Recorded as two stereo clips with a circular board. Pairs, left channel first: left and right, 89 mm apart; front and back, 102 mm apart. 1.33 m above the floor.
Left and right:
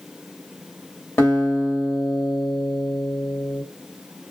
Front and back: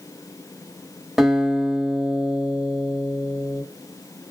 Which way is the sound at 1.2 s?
95° left.